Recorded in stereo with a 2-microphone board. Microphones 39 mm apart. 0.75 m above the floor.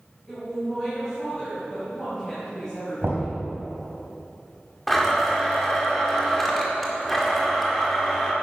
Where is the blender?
10° left (ahead or behind), 2 m.